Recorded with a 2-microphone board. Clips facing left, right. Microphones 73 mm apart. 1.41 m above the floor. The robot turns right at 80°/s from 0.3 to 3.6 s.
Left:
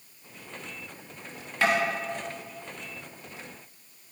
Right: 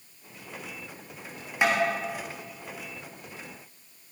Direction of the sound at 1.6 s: 20° right (ahead or behind).